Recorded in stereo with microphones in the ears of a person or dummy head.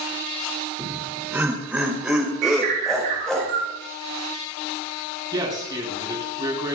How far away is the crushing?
No crushing in this recording.